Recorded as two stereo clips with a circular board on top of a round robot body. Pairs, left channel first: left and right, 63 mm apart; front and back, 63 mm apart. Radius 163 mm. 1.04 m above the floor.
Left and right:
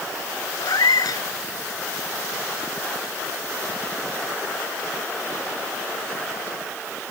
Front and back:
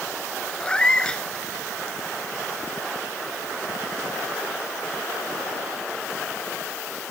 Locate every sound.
0.6 s a cat meowing: 75° left